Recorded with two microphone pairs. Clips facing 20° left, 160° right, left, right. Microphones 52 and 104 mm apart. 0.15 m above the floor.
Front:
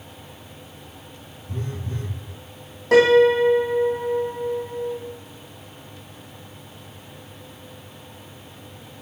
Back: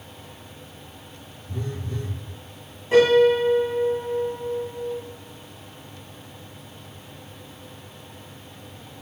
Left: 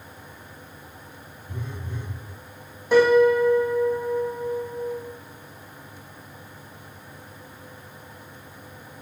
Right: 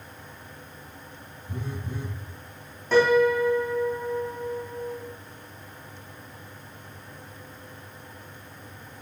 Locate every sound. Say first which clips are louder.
1.5 s a phone buzzing: even, right 2 dB; 15° right, 3 m
2.9 s a piano: front 2 dB, left 3 dB; 15° left, 2.5 m